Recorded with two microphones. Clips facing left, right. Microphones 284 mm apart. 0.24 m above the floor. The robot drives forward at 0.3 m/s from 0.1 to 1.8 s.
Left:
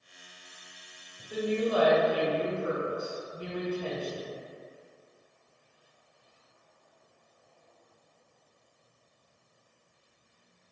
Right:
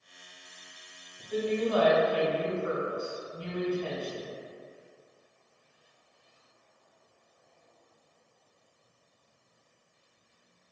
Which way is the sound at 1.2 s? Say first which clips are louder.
Even; 10° left (ahead or behind).